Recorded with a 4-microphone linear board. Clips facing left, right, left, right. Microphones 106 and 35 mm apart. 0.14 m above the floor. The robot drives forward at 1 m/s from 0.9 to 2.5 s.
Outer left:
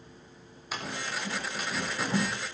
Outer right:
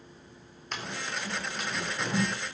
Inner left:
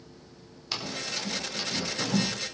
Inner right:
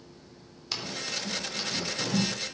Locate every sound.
0.7 s running footsteps: 5° left (ahead or behind), 3.5 m